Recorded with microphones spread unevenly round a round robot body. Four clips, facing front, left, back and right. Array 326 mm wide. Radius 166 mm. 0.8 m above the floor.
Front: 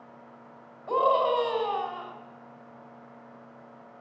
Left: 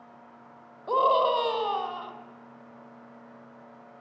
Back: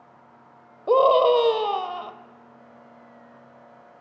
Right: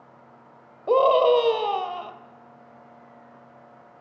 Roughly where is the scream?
Behind right.